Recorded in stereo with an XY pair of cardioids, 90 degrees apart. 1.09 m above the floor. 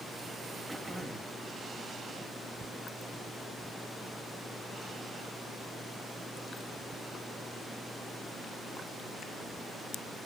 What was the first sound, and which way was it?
Throat clearing, 10° right.